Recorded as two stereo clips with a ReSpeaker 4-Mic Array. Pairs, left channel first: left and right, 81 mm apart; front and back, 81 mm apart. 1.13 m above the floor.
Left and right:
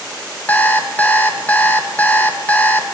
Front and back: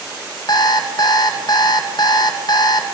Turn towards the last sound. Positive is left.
turn(degrees=20)